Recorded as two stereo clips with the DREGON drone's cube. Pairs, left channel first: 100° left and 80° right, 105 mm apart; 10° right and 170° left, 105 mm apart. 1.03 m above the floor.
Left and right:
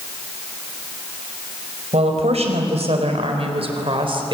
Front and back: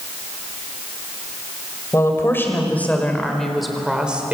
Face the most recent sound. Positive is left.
turn(degrees=-115)